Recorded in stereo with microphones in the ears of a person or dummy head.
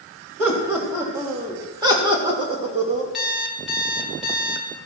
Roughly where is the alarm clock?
Centre.